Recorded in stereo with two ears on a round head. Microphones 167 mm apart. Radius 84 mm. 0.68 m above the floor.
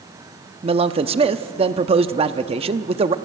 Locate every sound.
0.6 s a man speaking: 30° right (ahead or behind), 0.8 m